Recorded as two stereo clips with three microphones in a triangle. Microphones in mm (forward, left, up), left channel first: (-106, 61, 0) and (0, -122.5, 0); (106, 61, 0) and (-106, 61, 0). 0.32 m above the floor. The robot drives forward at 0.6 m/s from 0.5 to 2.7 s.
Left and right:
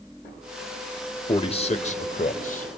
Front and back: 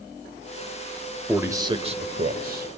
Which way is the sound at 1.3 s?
105° left.